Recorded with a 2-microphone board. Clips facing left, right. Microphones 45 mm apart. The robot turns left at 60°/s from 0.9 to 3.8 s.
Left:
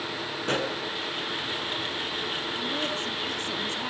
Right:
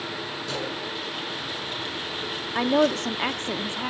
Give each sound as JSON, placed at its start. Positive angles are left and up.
{"t": 0.4, "sound": "a pop", "side_deg": 40, "distance_m": 4.5}
{"t": 2.5, "sound": "a woman speaking", "azimuth_deg": -80, "distance_m": 1.2}